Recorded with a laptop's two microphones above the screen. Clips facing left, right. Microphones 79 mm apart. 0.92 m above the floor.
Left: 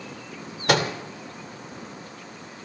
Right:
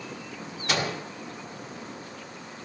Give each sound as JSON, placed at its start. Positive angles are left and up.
{"t": 0.7, "sound": "a microwave", "side_deg": 65, "distance_m": 2.0}